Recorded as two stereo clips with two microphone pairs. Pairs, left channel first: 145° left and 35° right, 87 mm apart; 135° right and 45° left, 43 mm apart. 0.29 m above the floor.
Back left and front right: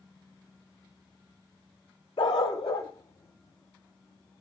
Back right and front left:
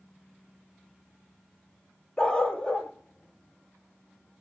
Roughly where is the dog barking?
Behind left.